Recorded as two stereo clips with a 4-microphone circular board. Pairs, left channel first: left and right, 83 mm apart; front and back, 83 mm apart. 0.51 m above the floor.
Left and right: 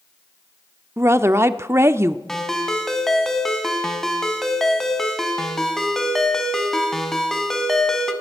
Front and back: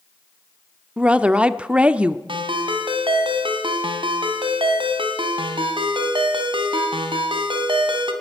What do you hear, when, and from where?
1.0 s a woman speaking: 115° right, 0.9 m
2.3 s a ringtone: 175° left, 2.5 m